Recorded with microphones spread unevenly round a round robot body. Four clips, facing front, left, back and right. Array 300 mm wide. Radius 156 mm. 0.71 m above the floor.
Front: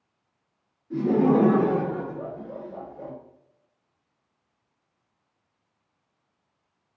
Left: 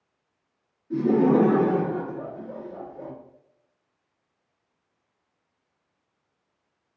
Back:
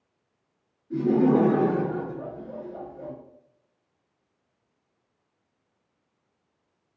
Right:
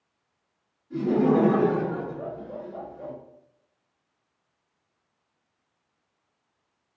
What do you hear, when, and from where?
0.9 s laughter: 65° left, 1.8 m